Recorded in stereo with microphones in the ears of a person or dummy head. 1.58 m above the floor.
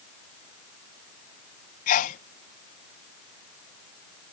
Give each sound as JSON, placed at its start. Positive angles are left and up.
{"t": 1.9, "sound": "a sneeze", "side_deg": 45}